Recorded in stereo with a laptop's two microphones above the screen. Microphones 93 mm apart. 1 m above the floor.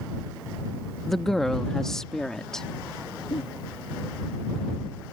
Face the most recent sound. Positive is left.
turn(degrees=70)  # may be behind; listen again after turning